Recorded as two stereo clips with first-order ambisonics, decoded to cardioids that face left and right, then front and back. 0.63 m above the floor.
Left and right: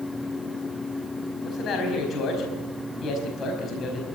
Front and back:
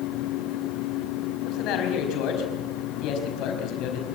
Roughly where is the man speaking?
Ahead left.